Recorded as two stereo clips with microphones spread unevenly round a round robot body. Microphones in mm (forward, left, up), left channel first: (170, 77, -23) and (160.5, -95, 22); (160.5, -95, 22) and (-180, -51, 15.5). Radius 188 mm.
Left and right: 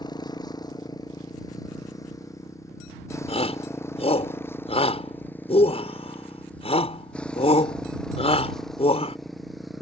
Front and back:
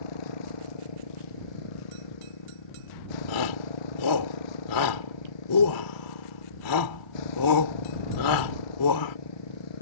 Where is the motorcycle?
20° left; by 9.8 s 5° right.